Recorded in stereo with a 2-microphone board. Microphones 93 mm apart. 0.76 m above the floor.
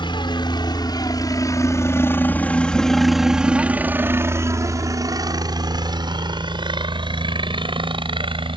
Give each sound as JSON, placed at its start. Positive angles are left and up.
{"t": 0.0, "sound": "a helicopter", "side_deg": 55}